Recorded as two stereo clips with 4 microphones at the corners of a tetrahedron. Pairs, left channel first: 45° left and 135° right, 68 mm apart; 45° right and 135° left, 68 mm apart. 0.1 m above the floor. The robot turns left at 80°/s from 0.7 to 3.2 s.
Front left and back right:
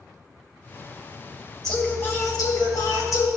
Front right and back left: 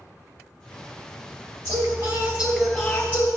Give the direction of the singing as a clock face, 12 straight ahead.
8 o'clock.